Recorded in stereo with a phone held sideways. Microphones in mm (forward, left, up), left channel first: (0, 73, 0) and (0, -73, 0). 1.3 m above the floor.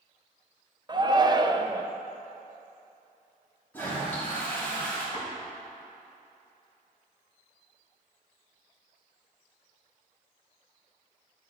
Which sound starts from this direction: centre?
A toilet flushing, at 3.7 s.